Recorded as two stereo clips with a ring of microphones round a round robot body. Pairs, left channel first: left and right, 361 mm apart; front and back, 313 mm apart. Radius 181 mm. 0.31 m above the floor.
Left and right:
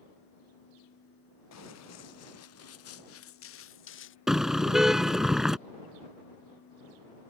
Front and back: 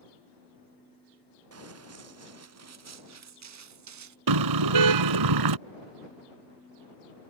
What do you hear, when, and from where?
1.5 s running footsteps: 140° left; by 4.2 s 150° left
4.3 s a car horn: straight behind